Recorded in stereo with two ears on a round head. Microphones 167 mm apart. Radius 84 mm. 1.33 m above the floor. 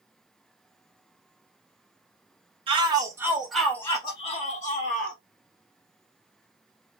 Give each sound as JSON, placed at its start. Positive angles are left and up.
{"t": 2.7, "sound": "a shout", "side_deg": -30, "distance_m": 0.9}